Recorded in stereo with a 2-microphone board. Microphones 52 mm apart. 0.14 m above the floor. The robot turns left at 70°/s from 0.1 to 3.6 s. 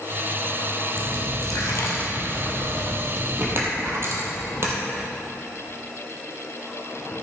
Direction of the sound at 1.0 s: 50° left (ahead or behind).